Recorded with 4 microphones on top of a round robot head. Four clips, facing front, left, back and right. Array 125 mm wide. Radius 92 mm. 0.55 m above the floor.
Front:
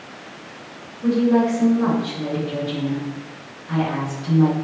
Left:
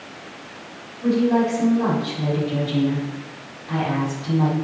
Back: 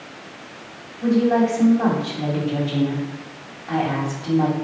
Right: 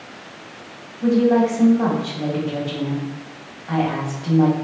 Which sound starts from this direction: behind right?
A woman speaking, at 1.0 s.